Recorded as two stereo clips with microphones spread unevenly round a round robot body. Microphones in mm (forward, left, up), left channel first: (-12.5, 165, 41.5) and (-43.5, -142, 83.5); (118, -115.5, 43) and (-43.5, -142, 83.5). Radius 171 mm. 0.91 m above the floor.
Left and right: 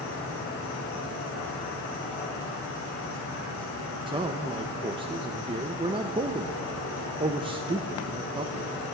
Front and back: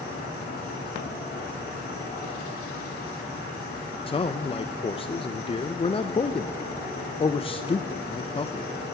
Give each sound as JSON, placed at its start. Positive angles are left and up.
{"t": 0.0, "sound": "an insect", "azimuth_deg": 30, "distance_m": 5.0}
{"t": 4.1, "sound": "a man speaking", "azimuth_deg": -20, "distance_m": 0.5}